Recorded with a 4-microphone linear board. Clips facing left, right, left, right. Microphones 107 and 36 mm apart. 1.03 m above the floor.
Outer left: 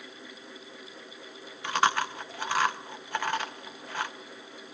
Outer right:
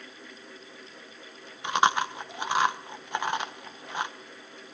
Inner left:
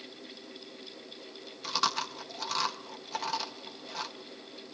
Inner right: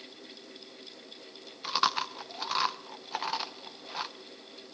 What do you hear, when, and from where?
1.6 s chewing: 20° right (ahead or behind), 0.5 m